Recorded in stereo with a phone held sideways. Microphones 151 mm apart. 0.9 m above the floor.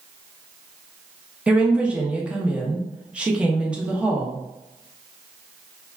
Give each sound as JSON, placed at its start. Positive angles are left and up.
{"t": 1.5, "sound": "a woman speaking", "side_deg": -5, "distance_m": 0.6}